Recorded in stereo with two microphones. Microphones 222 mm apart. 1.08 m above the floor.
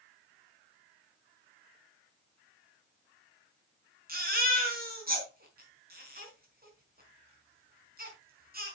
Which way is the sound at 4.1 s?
40° right (ahead or behind).